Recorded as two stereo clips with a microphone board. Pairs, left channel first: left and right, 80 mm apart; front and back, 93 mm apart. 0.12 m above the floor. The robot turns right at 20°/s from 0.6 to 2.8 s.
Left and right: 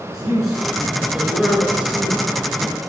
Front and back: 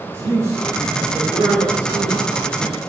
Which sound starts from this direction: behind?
A man speaking, at 0.1 s.